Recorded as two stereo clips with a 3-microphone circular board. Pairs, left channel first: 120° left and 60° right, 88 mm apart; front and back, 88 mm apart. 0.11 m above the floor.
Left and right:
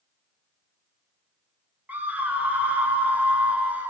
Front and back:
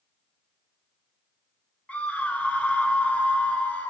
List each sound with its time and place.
1.9 s a scream: 35° right, 1.5 m